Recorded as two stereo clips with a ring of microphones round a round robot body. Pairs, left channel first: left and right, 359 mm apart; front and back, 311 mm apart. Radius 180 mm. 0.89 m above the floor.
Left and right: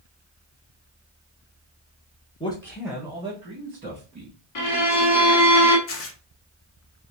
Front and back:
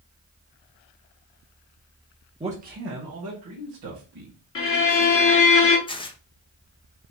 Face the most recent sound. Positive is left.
turn(degrees=65)